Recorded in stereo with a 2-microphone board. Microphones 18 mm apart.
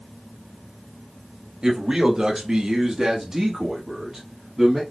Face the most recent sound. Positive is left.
turn(degrees=-5)  # may be behind; listen again after turning